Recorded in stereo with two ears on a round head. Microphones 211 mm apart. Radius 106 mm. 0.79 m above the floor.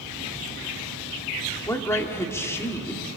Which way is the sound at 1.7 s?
10° left (ahead or behind).